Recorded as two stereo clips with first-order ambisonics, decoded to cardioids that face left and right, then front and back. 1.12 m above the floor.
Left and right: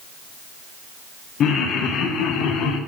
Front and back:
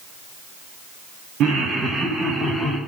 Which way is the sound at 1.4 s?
140° left.